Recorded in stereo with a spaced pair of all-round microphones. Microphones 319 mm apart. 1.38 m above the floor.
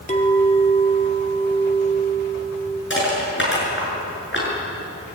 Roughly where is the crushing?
Left.